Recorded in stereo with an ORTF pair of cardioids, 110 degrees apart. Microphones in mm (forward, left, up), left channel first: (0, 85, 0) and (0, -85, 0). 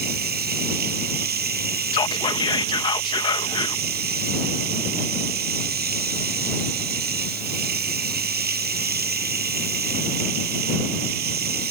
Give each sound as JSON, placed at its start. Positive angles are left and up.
{"t": 0.0, "sound": "running water", "azimuth_deg": -65}
{"t": 1.9, "sound": "whispering", "azimuth_deg": 25}